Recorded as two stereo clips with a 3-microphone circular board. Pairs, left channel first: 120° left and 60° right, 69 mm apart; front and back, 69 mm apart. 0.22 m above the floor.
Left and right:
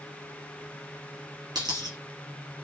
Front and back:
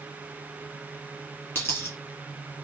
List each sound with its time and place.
1.6 s a dropped coin: 60° right, 2.5 m